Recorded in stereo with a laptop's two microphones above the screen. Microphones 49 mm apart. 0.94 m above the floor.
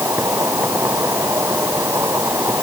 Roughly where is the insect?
Right.